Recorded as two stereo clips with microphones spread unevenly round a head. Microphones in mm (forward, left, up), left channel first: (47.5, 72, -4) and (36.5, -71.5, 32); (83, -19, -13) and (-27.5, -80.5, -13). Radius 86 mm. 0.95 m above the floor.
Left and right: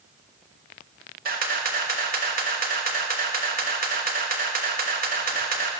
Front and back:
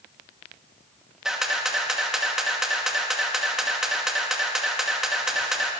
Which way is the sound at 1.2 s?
65° right.